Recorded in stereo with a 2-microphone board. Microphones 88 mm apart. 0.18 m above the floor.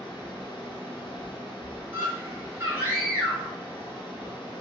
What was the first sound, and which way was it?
Running water, 55° left (ahead or behind).